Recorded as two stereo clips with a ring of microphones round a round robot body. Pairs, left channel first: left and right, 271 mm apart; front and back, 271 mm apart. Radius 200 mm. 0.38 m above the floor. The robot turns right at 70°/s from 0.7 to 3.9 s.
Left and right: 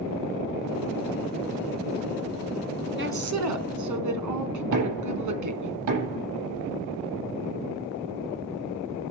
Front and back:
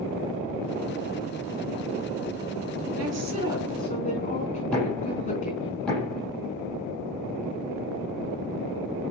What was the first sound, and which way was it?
A woman speaking, 135° right.